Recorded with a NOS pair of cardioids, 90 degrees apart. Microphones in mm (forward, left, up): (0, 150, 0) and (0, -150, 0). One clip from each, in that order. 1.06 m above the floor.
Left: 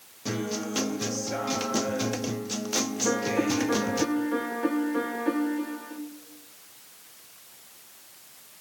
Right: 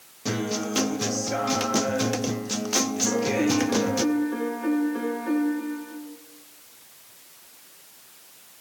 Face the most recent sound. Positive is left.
turn(degrees=35)